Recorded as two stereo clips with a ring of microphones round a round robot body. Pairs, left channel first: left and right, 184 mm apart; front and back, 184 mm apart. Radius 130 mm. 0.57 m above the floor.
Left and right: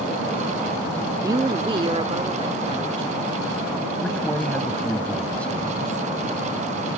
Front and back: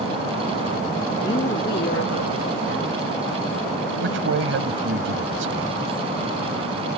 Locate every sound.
1.2 s a woman speaking: 40° right; by 5.0 s 25° right
4.0 s a man speaking: 175° left